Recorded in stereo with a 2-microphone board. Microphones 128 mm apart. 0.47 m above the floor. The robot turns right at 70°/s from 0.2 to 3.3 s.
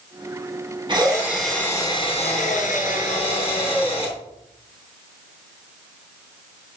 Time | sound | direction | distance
0.9 | a drill | 40° right | 3.5 m